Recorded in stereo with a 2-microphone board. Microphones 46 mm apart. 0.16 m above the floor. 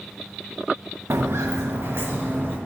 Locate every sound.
1.1 s footsteps: 75° right (ahead or behind), 0.6 m; by 2.6 s 45° right (ahead or behind), 1.2 m